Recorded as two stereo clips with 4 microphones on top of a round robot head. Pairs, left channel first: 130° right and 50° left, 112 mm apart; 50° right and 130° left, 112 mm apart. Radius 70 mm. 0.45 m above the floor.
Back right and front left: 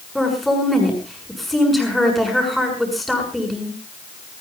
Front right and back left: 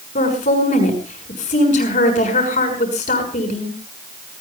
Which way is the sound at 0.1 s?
40° right.